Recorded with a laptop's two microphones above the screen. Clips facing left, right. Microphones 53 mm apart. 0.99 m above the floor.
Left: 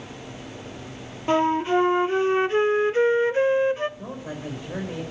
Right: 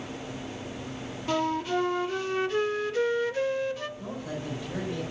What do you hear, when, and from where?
1.3 s a flute: 30° left (ahead or behind), 0.8 m
4.0 s a man speaking: 25° left (ahead or behind), 4.5 m